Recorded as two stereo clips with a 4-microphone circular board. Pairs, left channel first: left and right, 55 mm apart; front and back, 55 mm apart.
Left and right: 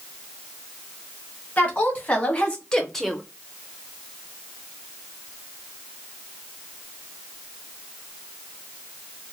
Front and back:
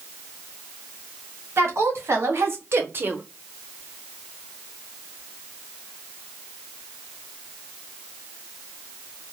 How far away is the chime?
I don't hear a chime.